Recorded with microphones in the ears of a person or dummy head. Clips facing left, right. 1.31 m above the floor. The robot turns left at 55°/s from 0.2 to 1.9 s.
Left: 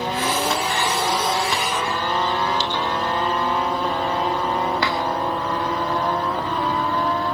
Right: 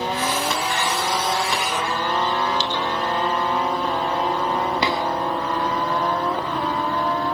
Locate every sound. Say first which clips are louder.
2.6 s dripping: even; 65° right (ahead or behind), 1.5 m
4.8 s a drawer: right 1 dB; 15° right (ahead or behind), 1.2 m